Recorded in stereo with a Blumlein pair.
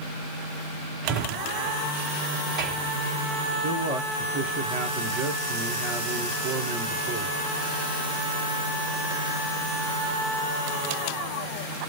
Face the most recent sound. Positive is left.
turn(degrees=-30)